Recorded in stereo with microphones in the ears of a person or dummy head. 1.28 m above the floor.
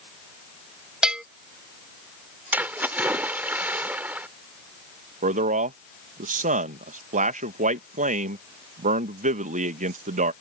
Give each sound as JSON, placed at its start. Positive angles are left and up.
{"t": 1.0, "sound": "a bell", "side_deg": -5}
{"t": 2.5, "sound": "a splash", "side_deg": -10}
{"t": 5.2, "sound": "a man speaking", "side_deg": -45}